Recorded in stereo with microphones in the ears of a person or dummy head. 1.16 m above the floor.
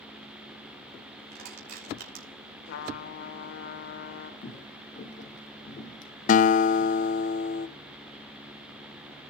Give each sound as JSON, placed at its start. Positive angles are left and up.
{"t": 1.3, "sound": "crushing", "side_deg": -50, "distance_m": 4.5}
{"t": 2.6, "sound": "a trumpet", "side_deg": 60, "distance_m": 2.0}
{"t": 4.4, "sound": "footsteps", "side_deg": 40, "distance_m": 2.5}
{"t": 6.3, "sound": "a guitar", "side_deg": 45, "distance_m": 0.5}